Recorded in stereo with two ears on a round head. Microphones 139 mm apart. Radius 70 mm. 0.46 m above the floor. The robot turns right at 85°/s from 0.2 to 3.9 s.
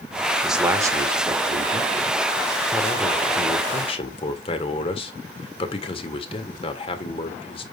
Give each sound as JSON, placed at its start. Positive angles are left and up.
{"t": 0.4, "sound": "a man speaking", "azimuth_deg": 180, "distance_m": 1.7}